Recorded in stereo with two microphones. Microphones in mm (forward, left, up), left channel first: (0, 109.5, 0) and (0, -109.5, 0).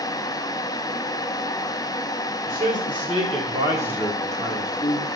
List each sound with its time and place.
2.5 s a man speaking: 45° right (ahead or behind), 1.8 m; by 5.1 s 20° left (ahead or behind), 1.5 m